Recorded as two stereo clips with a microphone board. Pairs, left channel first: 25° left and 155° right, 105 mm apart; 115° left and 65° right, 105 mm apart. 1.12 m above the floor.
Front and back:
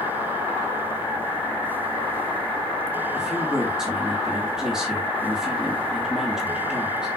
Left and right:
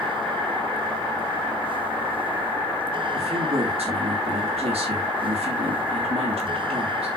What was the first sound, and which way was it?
A man speaking, 75° right.